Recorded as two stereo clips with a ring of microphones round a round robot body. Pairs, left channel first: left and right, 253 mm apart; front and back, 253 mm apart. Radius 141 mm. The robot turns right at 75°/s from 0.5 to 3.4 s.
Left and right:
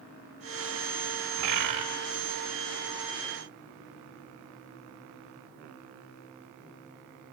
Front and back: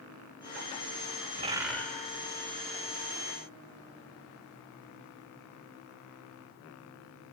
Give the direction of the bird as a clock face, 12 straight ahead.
4 o'clock.